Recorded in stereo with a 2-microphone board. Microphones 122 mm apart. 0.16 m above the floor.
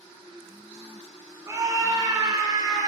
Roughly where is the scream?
Right.